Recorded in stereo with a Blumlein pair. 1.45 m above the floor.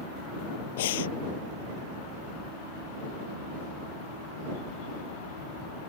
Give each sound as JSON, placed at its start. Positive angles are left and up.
{"t": 0.8, "sound": "breathing", "azimuth_deg": 55}